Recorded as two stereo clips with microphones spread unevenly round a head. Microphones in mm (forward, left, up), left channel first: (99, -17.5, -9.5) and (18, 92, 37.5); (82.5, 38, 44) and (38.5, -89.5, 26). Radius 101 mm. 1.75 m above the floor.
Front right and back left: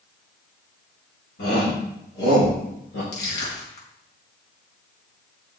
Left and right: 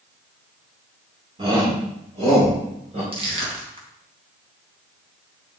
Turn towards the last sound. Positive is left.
turn(degrees=-60)